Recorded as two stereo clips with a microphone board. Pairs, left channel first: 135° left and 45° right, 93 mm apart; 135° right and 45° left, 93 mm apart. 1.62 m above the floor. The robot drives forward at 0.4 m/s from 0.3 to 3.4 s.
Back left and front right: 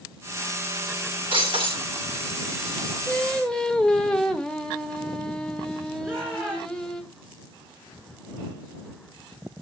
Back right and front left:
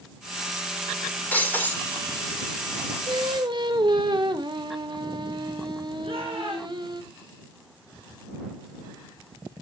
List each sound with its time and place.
1.3 s breaking glass: 65° right, 5.5 m
3.1 s singing: 50° left, 1.4 m; by 7.0 s 55° left, 1.3 m
6.0 s a shout: 30° left, 6.5 m